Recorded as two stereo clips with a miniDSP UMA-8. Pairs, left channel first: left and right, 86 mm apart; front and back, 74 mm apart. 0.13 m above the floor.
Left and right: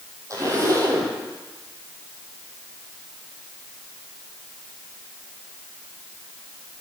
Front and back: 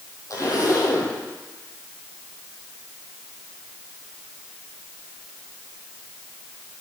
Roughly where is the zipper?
Ahead right.